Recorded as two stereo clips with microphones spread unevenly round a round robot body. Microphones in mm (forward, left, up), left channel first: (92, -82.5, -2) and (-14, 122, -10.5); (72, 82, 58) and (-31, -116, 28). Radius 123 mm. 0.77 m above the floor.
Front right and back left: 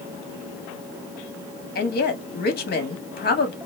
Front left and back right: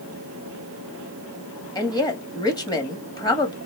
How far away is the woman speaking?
About 1.6 m.